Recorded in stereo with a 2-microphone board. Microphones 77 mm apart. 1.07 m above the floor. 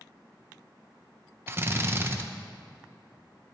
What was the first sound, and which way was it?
A drill, 30° right (ahead or behind).